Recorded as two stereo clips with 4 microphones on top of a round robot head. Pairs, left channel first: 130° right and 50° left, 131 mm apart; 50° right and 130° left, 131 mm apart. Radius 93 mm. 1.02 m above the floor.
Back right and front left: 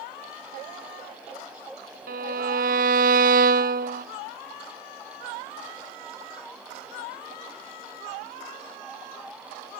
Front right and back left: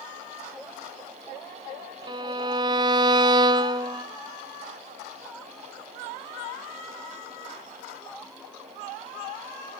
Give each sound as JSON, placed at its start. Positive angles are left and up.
{"t": 2.1, "sound": "a violin", "azimuth_deg": 70, "distance_m": 0.9}